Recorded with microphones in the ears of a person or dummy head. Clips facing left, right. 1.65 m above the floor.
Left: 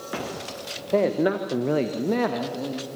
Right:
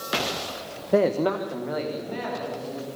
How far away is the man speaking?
About 1.3 m.